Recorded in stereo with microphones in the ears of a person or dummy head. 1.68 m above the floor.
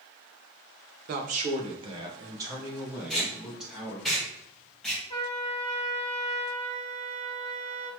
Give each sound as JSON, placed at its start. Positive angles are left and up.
{"t": 1.1, "sound": "a man speaking", "side_deg": -45, "distance_m": 0.8}
{"t": 3.1, "sound": "tape being pulled", "side_deg": 5, "distance_m": 1.7}
{"t": 5.1, "sound": "a trumpet", "side_deg": 30, "distance_m": 1.8}